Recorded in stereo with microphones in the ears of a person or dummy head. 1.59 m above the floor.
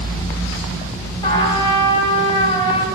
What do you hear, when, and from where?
1.2 s a trumpet: 30° left (ahead or behind), 4.5 m